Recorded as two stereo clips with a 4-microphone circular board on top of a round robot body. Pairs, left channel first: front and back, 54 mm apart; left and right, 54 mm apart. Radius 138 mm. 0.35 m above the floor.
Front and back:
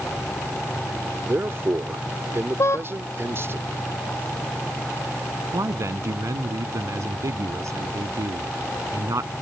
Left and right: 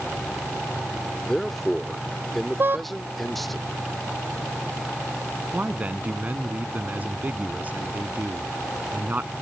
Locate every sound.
1.2 s a man speaking: 175° left
2.6 s a car horn: 40° right
5.5 s a man speaking: 150° right